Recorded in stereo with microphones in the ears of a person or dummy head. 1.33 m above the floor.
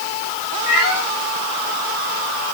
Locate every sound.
0.7 s a cat meowing: 45° left (ahead or behind), 5 m